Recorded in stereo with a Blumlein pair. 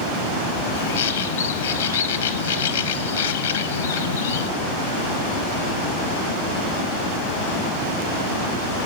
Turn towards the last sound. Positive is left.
turn(degrees=65)